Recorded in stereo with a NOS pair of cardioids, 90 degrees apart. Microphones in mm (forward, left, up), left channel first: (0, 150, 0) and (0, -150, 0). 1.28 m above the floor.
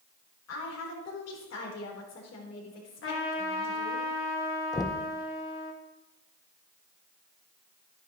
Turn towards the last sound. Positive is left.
turn(degrees=15)